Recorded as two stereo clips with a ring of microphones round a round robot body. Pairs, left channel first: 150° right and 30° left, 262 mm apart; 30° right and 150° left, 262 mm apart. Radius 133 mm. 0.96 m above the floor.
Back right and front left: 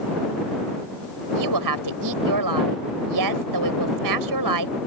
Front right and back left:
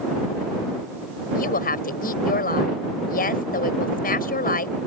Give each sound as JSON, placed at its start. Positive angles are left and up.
{"t": 1.4, "sound": "a woman speaking", "azimuth_deg": 30}